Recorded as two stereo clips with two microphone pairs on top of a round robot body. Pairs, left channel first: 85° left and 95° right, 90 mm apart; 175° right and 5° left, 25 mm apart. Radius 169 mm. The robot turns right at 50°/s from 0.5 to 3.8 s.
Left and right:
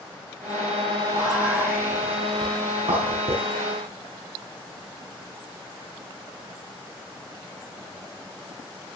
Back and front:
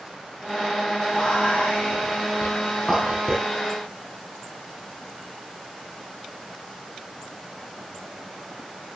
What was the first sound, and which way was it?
Whispering, 160° left.